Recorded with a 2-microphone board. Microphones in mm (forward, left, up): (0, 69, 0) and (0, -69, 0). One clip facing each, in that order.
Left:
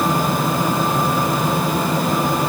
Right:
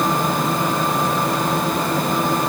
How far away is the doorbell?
No doorbell in this recording.